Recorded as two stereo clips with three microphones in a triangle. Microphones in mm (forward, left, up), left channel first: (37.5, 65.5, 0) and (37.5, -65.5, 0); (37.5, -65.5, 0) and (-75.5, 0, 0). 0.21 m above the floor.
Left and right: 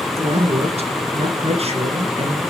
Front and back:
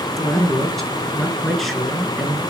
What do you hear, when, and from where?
0.2 s a man speaking: 120° right, 3 m